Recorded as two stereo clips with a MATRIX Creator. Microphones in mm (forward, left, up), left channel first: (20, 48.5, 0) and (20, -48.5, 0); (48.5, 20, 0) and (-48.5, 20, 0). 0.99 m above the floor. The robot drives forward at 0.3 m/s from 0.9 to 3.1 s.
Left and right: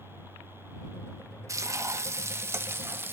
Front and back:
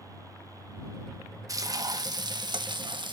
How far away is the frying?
About 1.0 m.